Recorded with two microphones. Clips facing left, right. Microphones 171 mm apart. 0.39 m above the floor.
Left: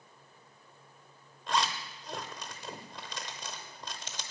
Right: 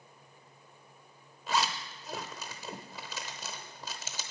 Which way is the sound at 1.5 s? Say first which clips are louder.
Even; 5° right (ahead or behind).